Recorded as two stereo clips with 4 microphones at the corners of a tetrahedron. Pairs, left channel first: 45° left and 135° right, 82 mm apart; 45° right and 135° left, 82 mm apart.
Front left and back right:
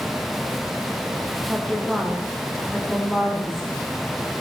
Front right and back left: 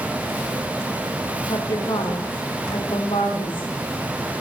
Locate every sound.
1.5 s a woman speaking: 35° right, 5.5 m